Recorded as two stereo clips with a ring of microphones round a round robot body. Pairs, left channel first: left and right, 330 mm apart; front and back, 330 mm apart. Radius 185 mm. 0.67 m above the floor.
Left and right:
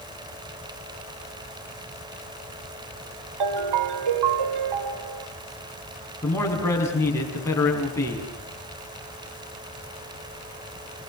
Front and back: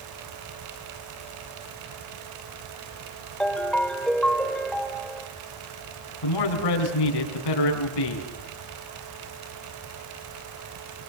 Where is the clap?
I don't hear a clap.